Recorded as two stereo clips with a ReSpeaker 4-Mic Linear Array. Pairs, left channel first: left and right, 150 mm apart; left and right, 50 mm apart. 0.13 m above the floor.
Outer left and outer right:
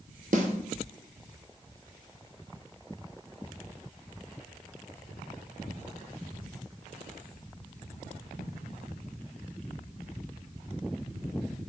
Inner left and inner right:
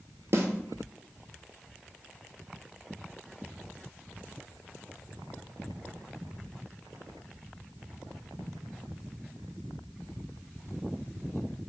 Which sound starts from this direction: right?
A snare drum, at 0.3 s.